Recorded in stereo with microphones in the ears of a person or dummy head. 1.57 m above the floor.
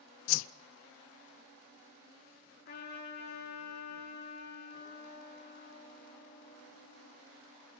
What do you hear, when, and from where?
0.3 s a whoosh: 75° left (ahead or behind), 0.5 m
2.6 s a trumpet: 60° left (ahead or behind), 6.5 m